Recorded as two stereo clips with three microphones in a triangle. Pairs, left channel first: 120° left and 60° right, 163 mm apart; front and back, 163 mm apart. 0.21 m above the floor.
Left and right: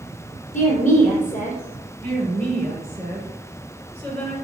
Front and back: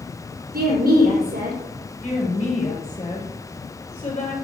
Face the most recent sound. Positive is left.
turn(degrees=45)